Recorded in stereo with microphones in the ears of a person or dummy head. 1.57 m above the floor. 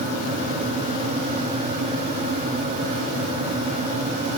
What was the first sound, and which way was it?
Only background noise.